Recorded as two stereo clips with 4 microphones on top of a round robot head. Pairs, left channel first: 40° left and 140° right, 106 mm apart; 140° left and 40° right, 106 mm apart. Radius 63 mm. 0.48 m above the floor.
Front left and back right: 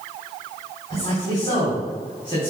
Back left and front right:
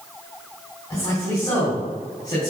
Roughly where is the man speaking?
Left.